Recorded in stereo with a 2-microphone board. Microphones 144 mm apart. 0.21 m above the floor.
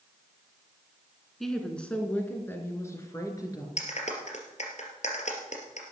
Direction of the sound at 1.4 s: Centre (ahead or behind).